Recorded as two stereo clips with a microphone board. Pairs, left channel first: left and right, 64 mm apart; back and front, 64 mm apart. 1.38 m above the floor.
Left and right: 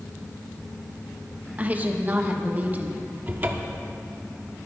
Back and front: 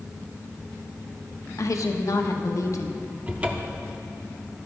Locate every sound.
1.6 s a woman speaking: 155° right, 1.3 m
3.3 s a cupboard door: 50° right, 1.1 m